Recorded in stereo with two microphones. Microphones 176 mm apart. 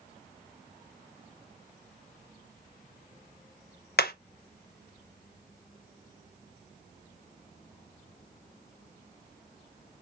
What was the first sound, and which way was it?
Hammering, 65° left (ahead or behind).